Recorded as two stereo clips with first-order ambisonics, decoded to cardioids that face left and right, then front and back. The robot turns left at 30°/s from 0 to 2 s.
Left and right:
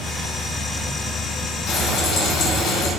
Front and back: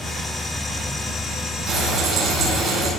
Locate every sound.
1.7 s frying: 120° left, 5.5 m; by 2.9 s 110° left, 5.5 m